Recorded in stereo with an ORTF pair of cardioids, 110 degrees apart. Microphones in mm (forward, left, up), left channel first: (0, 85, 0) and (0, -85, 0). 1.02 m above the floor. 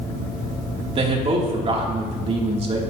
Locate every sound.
0.9 s a man speaking: 40° right, 2.5 m